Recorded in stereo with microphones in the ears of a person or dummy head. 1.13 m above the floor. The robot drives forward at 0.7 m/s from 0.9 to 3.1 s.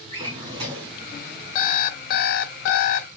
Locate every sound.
0.1 s a drawer: 35° right (ahead or behind), 2 m
1.6 s an alarm clock: 40° left (ahead or behind), 0.9 m; by 3.1 s 45° left (ahead or behind), 0.8 m